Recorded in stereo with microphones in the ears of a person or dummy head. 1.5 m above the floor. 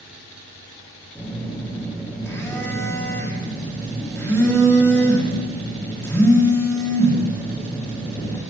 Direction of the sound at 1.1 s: 5° left (ahead or behind).